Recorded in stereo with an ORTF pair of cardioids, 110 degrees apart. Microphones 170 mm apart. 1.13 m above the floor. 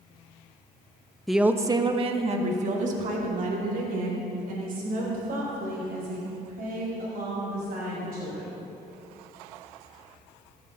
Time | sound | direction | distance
1.3 | a woman speaking | straight ahead | 0.8 m